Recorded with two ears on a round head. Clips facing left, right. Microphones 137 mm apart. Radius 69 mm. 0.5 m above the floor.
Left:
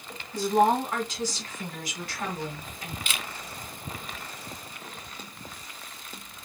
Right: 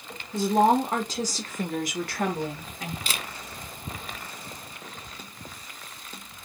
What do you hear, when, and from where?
0.3 s a woman speaking: 20° right (ahead or behind), 1.6 m; by 3.0 s 55° right (ahead or behind), 1.8 m
3.1 s a camera shutter: 35° right (ahead or behind), 0.7 m